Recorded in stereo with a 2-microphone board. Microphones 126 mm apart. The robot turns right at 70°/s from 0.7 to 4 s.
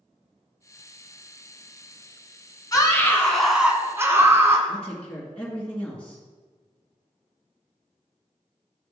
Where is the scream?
130° left, 1.5 m; by 4.6 s 140° right, 1.5 m.